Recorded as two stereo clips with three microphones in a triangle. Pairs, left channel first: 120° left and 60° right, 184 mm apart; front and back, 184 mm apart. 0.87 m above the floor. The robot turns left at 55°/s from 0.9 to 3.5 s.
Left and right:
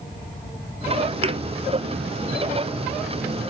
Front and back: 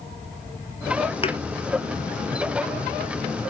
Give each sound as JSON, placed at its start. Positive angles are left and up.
{"t": 1.2, "sound": "a thud", "azimuth_deg": -30, "distance_m": 1.0}